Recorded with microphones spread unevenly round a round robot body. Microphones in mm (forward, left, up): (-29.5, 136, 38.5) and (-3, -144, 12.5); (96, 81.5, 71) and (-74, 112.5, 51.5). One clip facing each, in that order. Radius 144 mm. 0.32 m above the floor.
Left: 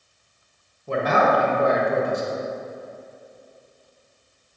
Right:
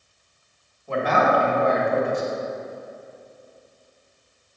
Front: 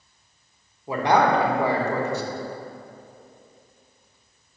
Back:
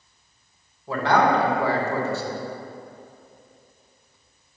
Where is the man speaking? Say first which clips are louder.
Left 1 dB, even; 65° left, 1.4 m.